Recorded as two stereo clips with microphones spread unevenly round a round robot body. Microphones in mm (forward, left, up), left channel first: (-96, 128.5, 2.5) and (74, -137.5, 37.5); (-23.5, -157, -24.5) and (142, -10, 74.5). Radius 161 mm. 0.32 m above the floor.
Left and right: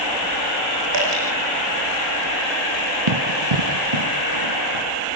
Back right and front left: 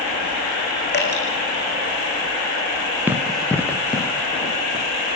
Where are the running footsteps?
35° right, 2.5 m; by 4.8 s 80° right, 4 m.